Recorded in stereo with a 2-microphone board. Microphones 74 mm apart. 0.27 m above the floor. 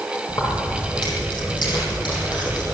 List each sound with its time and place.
0.3 s keys jangling: 80° left, 6 m; by 2.6 s 70° left (ahead or behind), 7.5 m